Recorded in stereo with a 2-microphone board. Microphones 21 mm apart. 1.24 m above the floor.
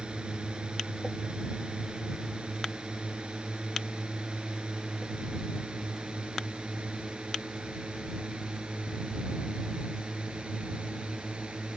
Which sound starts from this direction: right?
A drone, at 0.0 s.